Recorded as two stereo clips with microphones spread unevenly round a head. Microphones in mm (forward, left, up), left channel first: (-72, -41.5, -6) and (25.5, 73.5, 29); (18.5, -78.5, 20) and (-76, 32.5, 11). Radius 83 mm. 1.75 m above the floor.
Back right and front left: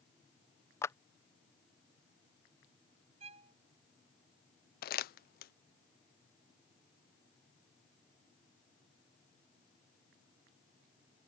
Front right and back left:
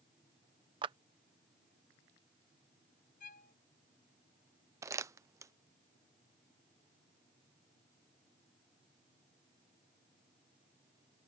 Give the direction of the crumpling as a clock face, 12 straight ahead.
5 o'clock.